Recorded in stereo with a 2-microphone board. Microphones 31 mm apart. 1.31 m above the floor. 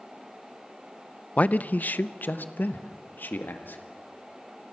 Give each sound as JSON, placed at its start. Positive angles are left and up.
{"t": 1.4, "sound": "a man speaking", "side_deg": 50, "distance_m": 0.5}